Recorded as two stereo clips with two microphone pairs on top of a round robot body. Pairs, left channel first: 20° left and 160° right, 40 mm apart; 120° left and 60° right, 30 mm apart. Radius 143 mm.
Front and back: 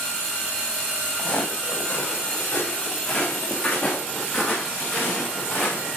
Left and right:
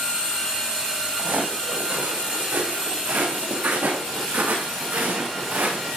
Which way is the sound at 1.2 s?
40° right.